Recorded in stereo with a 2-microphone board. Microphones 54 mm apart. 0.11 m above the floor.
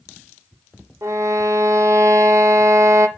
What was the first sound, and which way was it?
A violin, 80° right.